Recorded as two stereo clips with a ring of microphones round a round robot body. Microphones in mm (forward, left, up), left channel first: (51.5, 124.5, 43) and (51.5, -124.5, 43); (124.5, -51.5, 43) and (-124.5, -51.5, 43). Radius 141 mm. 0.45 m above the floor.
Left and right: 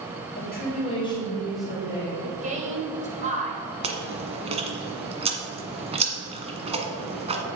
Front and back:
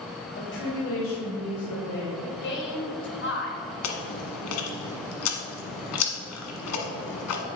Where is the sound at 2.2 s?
35° right, 2 m.